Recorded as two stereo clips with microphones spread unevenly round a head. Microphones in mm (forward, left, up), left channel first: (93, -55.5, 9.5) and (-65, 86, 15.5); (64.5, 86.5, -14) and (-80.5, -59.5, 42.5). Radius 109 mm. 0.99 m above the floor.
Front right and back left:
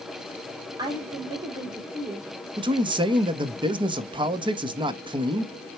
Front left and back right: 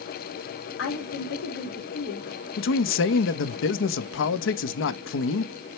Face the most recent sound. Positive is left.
turn(degrees=70)